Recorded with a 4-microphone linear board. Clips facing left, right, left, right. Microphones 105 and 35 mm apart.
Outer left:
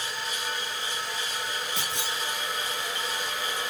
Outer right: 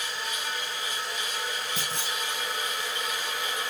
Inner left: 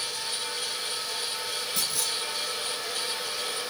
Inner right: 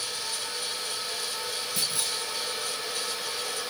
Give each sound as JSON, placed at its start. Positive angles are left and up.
{"t": 1.8, "sound": "a clunk", "side_deg": -40, "distance_m": 2.0}